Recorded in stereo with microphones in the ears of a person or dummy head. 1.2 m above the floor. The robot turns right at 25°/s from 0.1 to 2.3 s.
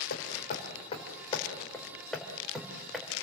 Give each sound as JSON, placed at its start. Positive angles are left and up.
{"t": 0.1, "sound": "hammering", "side_deg": 50, "distance_m": 4.5}